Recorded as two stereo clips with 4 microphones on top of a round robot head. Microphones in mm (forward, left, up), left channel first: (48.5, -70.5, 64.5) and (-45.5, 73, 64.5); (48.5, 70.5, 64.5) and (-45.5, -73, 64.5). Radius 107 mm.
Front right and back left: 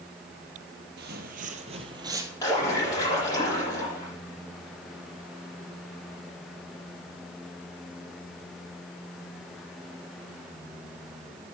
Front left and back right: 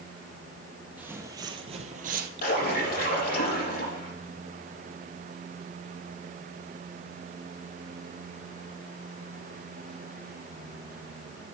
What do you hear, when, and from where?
1.0 s footsteps: 155° left, 1.5 m; by 2.3 s 160° right, 1.5 m
2.4 s a splash: 15° left, 7 m